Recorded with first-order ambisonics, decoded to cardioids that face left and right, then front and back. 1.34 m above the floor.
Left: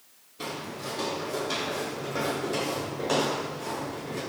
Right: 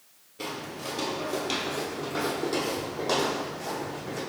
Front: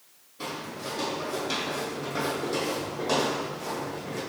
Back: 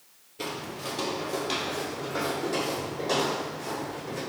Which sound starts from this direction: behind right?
Footsteps, at 0.4 s.